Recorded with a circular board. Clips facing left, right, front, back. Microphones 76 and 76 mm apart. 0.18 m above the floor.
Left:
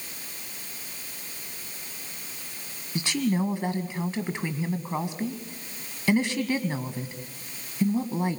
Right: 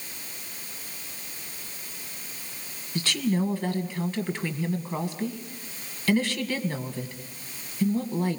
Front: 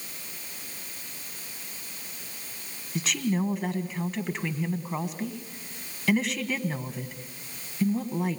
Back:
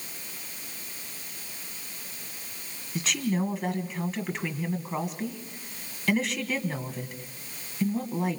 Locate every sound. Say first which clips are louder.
3.0 s a woman speaking: even, front 1 dB; 90° left, 1.3 m